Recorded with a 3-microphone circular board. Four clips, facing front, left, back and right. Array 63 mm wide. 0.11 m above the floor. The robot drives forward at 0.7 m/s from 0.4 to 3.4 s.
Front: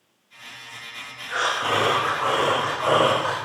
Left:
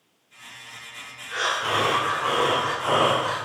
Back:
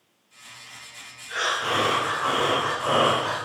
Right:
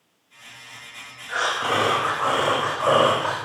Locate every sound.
1.3 s breathing: 55° right, 3.5 m; by 3.4 s 80° right, 3 m